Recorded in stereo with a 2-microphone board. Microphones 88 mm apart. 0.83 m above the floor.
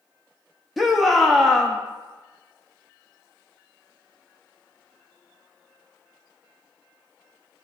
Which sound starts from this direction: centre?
A shout, at 0.8 s.